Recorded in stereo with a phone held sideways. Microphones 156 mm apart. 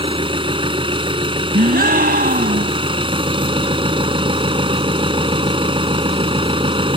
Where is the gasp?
80° right.